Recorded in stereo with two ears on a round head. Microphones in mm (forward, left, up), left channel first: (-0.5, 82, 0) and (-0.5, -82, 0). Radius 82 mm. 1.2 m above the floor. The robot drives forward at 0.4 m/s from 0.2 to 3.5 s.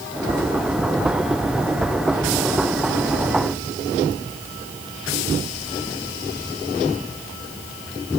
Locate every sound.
Only background noise.